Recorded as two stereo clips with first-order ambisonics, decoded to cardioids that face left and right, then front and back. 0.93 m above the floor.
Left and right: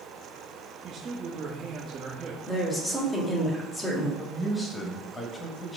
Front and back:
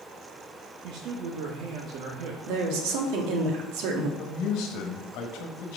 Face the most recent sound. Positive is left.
turn(degrees=10)